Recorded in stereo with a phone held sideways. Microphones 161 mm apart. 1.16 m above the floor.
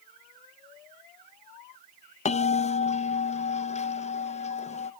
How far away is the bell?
About 0.5 m.